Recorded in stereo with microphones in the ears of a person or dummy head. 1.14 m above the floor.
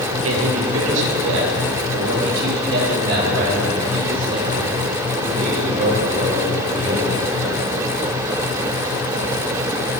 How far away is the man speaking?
About 1.3 m.